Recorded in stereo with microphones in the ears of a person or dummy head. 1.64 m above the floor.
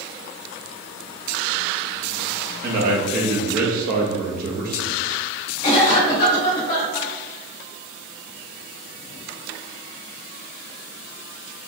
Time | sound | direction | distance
2.6 | a man speaking | 50° right (ahead or behind) | 0.7 m
5.6 | a cough | 60° left (ahead or behind) | 1.5 m